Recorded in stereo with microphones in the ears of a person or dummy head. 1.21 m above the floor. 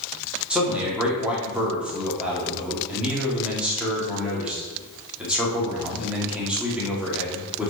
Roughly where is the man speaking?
Centre.